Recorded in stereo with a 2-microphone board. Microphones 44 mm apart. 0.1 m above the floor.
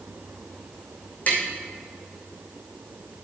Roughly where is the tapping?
Left.